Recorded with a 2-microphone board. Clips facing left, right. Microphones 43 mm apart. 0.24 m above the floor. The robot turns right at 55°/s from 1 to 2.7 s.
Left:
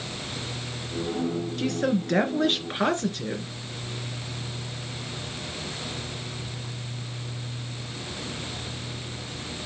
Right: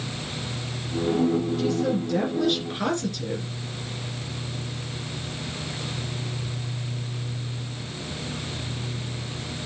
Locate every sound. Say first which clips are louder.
1.6 s a woman speaking: right 1 dB; 90° left, 3 m; by 3.5 s 155° left, 3 m